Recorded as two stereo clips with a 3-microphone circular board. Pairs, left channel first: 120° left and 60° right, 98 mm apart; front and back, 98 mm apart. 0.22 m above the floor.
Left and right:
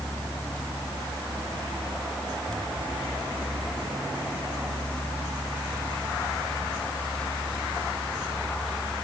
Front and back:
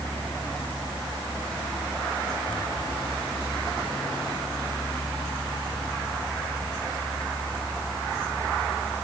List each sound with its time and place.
Only background noise.